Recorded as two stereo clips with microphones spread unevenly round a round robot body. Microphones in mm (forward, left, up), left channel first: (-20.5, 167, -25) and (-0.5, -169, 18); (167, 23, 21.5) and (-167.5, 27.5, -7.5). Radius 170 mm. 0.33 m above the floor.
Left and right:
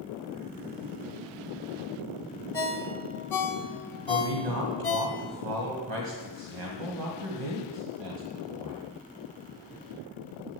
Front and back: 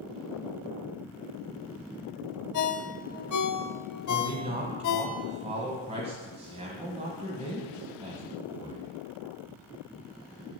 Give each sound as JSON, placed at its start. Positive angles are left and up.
{"t": 2.5, "sound": "a ringtone", "azimuth_deg": 20, "distance_m": 1.2}
{"t": 4.1, "sound": "a man speaking", "azimuth_deg": -110, "distance_m": 1.8}